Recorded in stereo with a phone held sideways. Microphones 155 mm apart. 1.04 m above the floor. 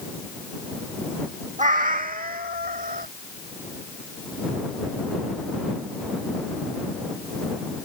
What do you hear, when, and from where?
1.6 s a cat meowing: 55° right (ahead or behind); by 3.1 s 75° right (ahead or behind)